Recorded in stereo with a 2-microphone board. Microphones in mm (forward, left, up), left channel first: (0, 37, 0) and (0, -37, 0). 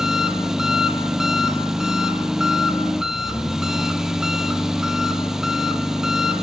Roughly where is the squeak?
No squeak in this recording.